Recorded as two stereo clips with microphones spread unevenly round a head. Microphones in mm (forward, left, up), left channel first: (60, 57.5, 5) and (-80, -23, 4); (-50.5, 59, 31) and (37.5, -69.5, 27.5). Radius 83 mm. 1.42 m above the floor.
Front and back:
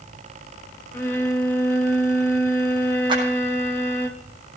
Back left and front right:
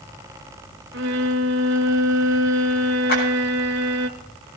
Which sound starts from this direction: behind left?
A clap, at 3.1 s.